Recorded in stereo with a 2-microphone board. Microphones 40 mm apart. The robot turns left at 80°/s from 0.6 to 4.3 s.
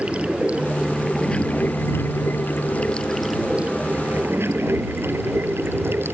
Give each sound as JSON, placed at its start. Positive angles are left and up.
{"t": 0.0, "sound": "running water", "azimuth_deg": -145}